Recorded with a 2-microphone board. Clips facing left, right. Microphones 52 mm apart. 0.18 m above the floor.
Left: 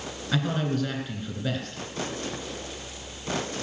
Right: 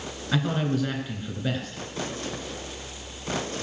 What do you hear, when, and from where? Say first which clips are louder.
0.3 s a man speaking: right 1 dB; 5° right (ahead or behind), 2.5 m